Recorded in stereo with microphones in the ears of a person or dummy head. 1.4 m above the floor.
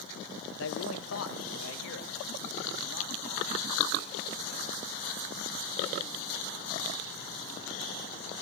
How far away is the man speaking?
About 1.2 m.